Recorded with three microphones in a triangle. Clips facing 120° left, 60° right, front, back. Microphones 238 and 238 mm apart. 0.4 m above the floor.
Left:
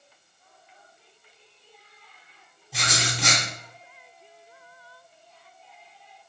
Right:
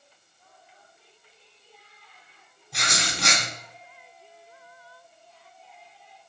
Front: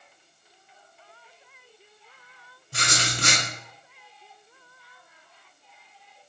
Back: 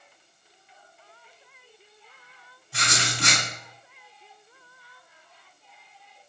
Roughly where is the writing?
Ahead left.